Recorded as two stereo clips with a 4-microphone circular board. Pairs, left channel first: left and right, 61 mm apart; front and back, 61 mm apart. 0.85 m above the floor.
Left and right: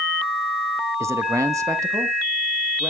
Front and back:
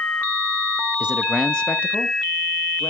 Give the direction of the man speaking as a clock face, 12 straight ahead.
4 o'clock.